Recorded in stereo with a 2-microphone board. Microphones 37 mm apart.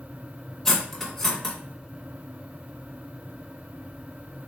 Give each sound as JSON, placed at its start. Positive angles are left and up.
{"t": 0.7, "sound": "cutlery clinking", "side_deg": 10, "distance_m": 0.7}